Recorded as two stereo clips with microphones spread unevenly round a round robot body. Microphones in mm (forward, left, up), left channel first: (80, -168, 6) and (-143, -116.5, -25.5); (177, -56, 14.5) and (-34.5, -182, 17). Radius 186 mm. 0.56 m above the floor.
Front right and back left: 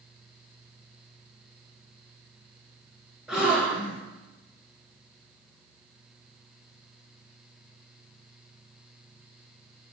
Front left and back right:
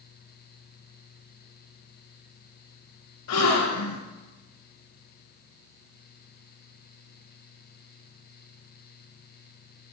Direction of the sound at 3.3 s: 75° left.